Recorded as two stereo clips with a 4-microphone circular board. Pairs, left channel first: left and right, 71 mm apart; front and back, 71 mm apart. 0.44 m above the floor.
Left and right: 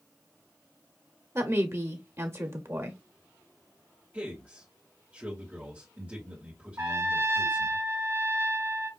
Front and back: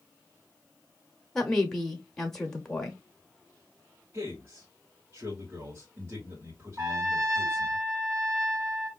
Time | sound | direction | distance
1.4 | a woman speaking | 80° right | 1.0 m
4.1 | a man speaking | 145° right | 1.7 m
6.8 | a trumpet | 130° right | 1.7 m